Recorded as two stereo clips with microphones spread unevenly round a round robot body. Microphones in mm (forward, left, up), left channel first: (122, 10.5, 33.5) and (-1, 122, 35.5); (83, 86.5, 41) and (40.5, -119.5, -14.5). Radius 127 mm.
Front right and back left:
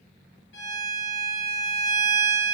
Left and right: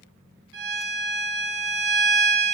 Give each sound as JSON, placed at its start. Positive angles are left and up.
{"t": 0.5, "sound": "a violin", "azimuth_deg": -70, "distance_m": 2.0}